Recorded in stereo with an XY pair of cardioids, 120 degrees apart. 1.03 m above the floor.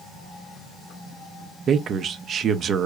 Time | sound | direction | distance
1.7 | a man speaking | 50° right | 0.7 m